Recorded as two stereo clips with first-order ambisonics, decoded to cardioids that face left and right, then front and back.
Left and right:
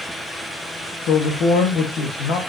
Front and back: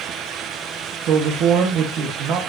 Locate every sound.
1.0 s a man speaking: 135° left, 1.8 m